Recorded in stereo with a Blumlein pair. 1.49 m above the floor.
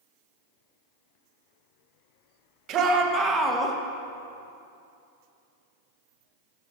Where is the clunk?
No clunk in this recording.